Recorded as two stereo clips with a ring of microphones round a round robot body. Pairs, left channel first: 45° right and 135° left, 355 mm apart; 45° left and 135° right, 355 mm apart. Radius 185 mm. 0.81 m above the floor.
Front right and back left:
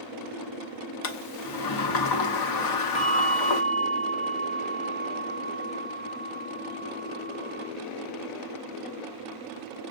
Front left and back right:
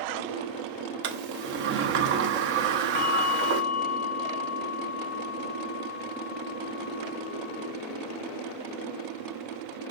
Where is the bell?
25° left, 0.9 m.